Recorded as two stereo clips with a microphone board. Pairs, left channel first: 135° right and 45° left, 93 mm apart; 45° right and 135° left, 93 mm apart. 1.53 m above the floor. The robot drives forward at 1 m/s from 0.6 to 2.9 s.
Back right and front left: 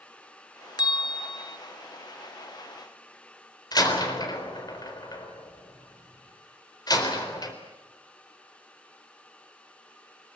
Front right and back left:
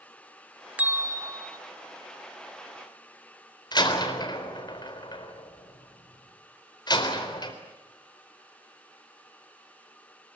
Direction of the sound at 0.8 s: 155° right.